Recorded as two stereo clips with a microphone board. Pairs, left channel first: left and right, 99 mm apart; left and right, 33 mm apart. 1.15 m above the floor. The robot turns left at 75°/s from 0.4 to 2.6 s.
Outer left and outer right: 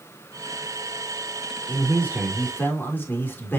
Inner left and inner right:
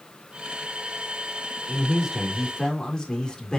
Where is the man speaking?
130° right, 3 m; by 3.6 s 160° left, 3 m.